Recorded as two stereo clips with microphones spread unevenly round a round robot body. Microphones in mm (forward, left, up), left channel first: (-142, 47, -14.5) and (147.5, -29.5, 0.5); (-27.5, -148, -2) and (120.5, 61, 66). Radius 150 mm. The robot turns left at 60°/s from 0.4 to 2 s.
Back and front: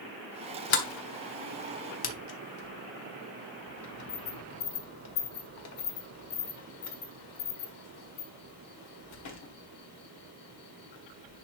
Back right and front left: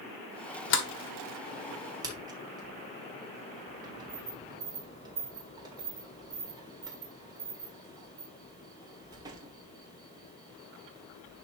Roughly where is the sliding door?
Behind right.